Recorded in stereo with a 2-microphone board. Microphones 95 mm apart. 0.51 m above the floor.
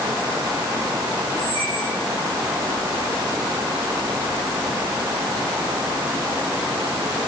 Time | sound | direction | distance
1.4 | a squeak | 60° right (ahead or behind) | 5 m